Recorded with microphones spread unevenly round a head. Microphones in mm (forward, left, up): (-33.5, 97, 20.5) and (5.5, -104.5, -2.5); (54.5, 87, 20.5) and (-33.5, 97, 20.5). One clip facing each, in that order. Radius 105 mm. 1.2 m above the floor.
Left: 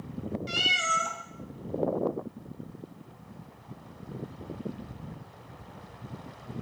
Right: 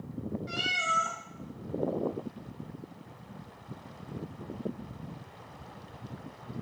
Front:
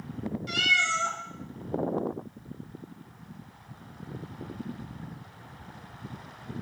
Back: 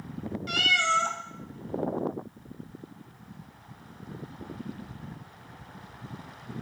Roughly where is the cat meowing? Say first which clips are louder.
Left 2 dB, back 2 dB; behind left.